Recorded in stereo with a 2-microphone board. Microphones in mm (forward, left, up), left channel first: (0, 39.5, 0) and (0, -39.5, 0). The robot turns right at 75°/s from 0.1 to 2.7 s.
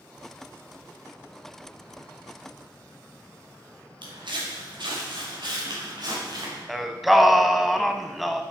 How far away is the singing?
About 0.7 m.